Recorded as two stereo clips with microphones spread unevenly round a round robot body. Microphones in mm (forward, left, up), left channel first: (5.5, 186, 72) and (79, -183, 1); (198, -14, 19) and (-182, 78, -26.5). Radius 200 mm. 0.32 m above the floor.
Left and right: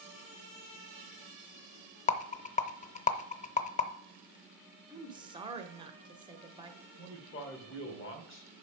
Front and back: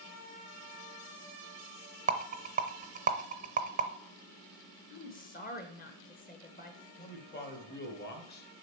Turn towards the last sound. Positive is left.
turn(degrees=45)